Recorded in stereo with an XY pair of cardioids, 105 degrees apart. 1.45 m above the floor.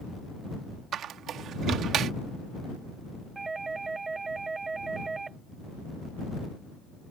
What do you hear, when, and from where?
0.9 s a squeak: 70° right
3.4 s a doorbell: 25° right